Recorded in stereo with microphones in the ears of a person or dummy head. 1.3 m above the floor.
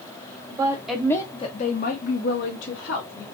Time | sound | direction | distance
0.5 | a woman speaking | 20° right (ahead or behind) | 0.9 m